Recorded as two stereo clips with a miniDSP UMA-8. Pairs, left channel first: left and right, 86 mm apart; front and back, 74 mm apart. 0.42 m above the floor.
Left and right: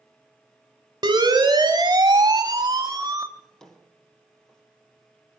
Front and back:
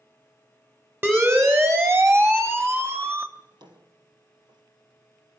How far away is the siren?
About 3.5 m.